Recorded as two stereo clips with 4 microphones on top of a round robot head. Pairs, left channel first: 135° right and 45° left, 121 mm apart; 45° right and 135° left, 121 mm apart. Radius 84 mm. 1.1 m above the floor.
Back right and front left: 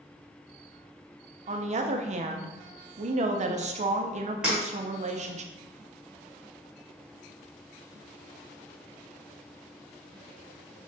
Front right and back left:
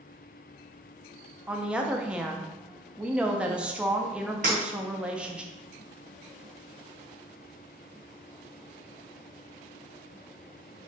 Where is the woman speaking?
55° left, 0.5 m.